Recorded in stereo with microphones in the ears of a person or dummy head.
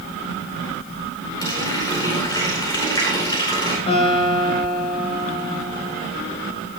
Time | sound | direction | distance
1.4 | a running tap | 15° left (ahead or behind) | 5 m
3.9 | a guitar | 30° left (ahead or behind) | 7.5 m